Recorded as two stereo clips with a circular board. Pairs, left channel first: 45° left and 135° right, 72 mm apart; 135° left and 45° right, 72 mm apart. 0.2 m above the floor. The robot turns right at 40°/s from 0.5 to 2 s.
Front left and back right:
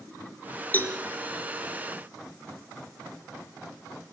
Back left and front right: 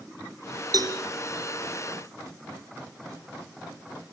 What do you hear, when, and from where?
0.7 s a cowbell: 20° right, 2.5 m; by 1.0 s 10° right, 2.5 m